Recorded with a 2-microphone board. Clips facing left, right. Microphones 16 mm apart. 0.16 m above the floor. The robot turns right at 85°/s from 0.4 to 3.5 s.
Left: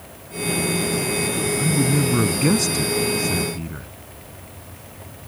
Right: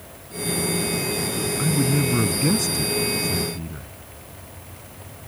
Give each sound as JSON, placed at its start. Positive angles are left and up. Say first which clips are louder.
{"t": 1.6, "sound": "a man speaking", "louder": "left 1 dB", "azimuth_deg": -25}